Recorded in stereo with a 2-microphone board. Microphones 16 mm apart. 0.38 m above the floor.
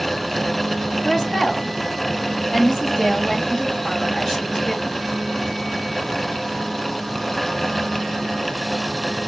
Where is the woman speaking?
45° left (ahead or behind), 2.5 m.